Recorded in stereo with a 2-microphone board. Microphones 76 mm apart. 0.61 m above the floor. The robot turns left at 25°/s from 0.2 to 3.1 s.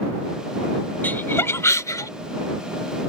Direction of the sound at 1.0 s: 25° left (ahead or behind).